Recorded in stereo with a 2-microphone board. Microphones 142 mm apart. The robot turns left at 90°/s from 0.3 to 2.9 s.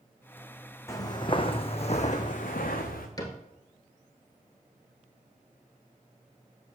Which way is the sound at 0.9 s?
20° left (ahead or behind).